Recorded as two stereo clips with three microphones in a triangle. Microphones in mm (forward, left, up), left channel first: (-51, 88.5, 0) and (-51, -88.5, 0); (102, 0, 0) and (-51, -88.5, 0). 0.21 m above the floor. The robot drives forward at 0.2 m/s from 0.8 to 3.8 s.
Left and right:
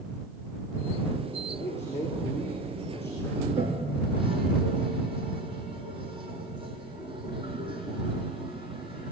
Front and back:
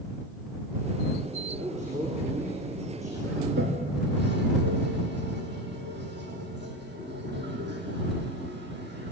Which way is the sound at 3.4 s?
150° right.